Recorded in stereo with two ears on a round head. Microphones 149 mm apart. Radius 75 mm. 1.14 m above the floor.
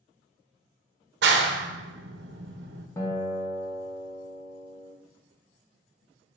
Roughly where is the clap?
Right.